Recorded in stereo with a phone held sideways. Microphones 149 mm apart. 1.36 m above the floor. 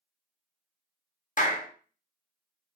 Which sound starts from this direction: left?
A clap, at 1.4 s.